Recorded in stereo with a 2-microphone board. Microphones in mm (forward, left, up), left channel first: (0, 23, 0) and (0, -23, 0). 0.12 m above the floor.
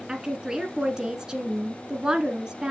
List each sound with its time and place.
0.1 s a woman speaking: 15° right (ahead or behind), 1.2 m